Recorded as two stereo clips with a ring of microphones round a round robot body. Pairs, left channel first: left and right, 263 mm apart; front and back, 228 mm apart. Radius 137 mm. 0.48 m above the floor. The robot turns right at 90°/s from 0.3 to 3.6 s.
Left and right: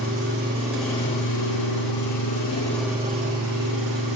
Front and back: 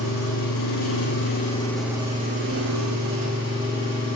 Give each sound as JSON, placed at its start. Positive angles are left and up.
{"t": 0.0, "sound": "an engine running", "azimuth_deg": -45, "distance_m": 6.5}